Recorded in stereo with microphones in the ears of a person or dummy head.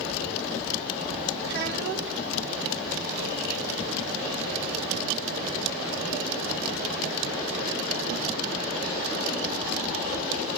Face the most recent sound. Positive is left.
turn(degrees=-60)  # may be behind; listen again after turning